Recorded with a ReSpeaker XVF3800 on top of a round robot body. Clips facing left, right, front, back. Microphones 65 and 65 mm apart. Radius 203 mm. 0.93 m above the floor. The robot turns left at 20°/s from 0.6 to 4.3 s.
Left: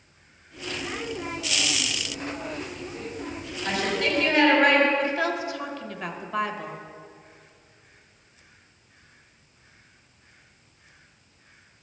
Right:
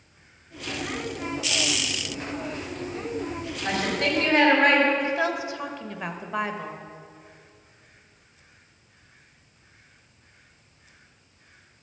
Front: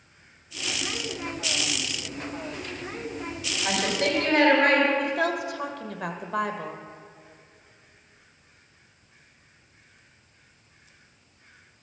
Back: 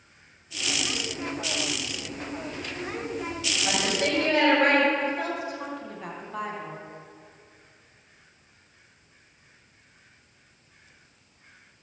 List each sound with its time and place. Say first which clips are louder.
3.6 s a woman speaking: even, front 1 dB; 30° right, 4 m; by 4.9 s 40° right, 4 m
5.0 s a woman speaking: even, front 3 dB; 20° right, 1.3 m